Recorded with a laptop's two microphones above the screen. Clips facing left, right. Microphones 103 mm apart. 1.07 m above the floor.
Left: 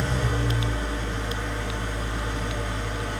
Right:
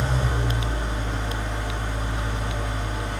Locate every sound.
0.0 s an engine running: 20° right (ahead or behind), 2.5 m